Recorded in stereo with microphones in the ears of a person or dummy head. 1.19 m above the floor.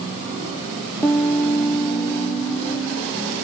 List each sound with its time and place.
1.0 s a piano: 15° left (ahead or behind), 0.7 m